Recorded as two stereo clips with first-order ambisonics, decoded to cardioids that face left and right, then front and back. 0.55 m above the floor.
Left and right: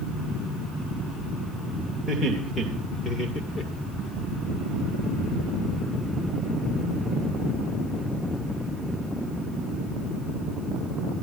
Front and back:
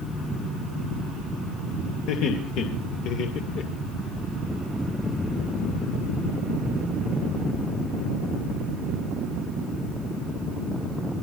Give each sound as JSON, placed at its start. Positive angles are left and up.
{"t": 2.1, "sound": "laughter", "azimuth_deg": 5, "distance_m": 3.0}